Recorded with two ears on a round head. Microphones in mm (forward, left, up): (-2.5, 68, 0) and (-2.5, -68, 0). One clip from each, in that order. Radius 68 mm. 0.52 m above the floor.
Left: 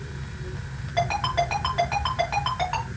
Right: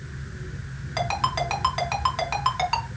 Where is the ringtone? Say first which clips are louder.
Left 1 dB; 70° right (ahead or behind), 4 m.